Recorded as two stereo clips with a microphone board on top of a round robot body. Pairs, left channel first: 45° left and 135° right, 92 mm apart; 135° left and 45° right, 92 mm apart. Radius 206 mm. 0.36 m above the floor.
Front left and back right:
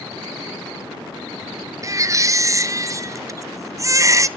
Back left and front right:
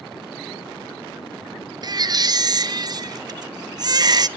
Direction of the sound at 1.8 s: 85° right.